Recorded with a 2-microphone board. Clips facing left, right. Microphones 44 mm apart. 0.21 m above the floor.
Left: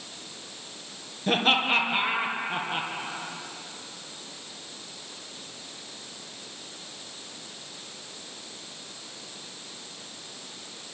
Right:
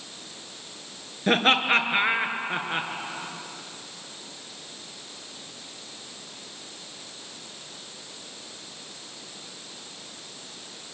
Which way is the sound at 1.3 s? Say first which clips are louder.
Right 2 dB; 55° right (ahead or behind).